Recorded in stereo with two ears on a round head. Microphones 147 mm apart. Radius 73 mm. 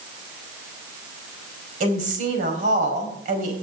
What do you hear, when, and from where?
1.8 s a woman speaking: 50° right (ahead or behind), 4.5 m